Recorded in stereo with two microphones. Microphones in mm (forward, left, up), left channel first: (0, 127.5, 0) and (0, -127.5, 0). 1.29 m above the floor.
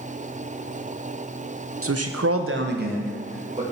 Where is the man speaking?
60° right (ahead or behind), 0.8 m; by 3.6 s 20° right (ahead or behind), 2.5 m.